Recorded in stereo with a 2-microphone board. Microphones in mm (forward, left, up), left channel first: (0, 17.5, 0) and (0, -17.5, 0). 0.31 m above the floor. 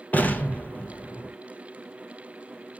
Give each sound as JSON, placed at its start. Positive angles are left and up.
{"t": 0.1, "sound": "an explosion", "side_deg": 50, "distance_m": 1.3}